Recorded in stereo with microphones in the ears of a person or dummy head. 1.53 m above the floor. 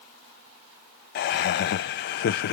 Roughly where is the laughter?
Left.